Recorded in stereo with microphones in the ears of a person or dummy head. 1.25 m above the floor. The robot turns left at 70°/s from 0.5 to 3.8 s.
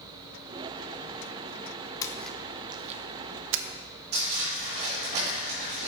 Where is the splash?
20° left (ahead or behind), 0.6 m; by 3.6 s 65° right (ahead or behind), 0.6 m.